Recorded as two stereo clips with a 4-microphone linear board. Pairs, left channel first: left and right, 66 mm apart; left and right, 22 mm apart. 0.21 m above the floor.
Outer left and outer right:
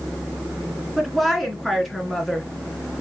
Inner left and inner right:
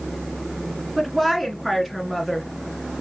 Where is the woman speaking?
Centre (ahead or behind), 2.5 m.